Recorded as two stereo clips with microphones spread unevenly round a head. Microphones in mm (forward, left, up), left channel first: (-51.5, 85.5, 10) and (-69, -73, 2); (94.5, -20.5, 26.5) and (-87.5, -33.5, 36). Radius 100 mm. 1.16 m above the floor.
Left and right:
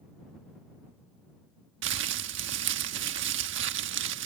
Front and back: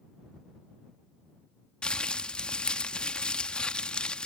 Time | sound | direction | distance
1.8 | crumpling | 80° right | ?